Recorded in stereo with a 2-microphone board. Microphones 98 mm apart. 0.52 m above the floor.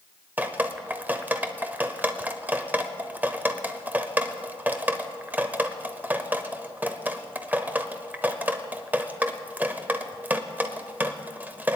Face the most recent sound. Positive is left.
turn(degrees=-15)  # may be behind; listen again after turning